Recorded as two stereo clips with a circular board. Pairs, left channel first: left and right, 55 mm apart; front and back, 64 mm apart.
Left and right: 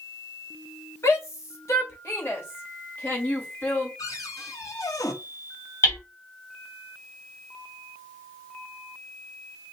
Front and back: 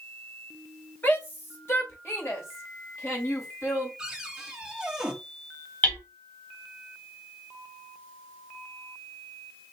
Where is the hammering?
60° left, 3.5 m.